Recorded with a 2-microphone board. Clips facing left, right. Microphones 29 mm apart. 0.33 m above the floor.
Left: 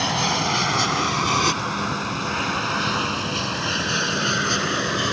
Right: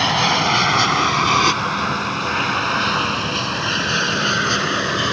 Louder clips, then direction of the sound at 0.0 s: Right 5 dB; 30° right (ahead or behind).